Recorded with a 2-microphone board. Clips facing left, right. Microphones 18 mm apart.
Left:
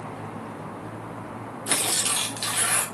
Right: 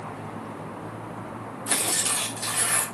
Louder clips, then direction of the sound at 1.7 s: Left 1 dB; 45° left (ahead or behind).